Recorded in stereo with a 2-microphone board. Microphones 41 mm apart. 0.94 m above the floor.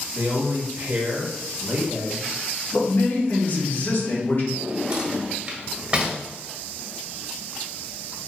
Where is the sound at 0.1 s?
40° right (ahead or behind), 0.9 m.